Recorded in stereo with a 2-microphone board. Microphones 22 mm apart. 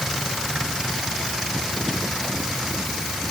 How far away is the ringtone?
No ringtone in this recording.